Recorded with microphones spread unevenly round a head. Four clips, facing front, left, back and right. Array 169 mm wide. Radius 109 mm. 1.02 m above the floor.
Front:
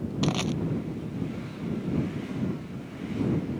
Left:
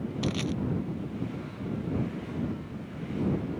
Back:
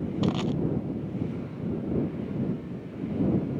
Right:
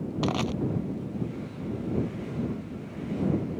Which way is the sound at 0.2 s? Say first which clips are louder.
Right 3 dB, even; 75° right.